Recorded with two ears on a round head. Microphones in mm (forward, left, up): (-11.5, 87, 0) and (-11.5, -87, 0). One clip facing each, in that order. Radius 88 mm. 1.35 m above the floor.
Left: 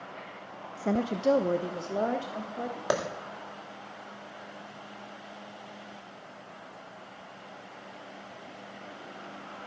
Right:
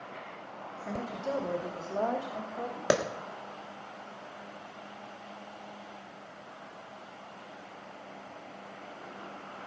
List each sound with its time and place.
0.8 s a woman speaking: 60° left (ahead or behind), 0.8 m; by 2.8 s 15° left (ahead or behind), 2.5 m
2.9 s a clap: 30° right (ahead or behind), 1.7 m